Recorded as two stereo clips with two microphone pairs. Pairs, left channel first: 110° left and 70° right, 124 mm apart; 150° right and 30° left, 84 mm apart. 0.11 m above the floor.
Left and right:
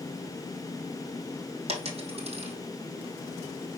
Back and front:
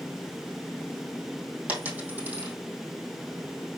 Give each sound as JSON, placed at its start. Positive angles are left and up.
{"t": 1.7, "sound": "a dropped coin", "azimuth_deg": -40, "distance_m": 2.5}